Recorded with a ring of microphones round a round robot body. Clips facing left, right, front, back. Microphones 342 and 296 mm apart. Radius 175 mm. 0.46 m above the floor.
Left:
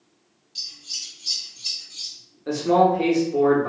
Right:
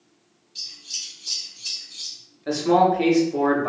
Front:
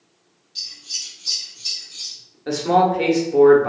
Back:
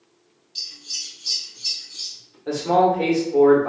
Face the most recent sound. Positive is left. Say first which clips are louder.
# even, even
turn(degrees=-15)